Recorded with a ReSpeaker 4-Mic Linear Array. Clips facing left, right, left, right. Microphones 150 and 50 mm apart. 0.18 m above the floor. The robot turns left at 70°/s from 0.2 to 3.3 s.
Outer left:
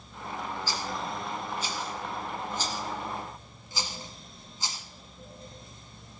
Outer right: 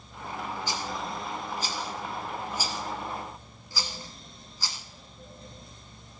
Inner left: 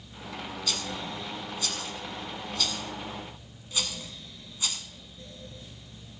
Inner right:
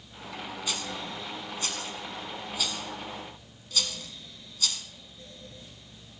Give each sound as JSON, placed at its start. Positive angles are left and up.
{"t": 0.7, "sound": "a rattle", "side_deg": -20, "distance_m": 1.4}